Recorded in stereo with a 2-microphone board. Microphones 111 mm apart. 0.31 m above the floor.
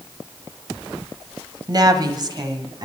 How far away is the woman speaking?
About 1.4 m.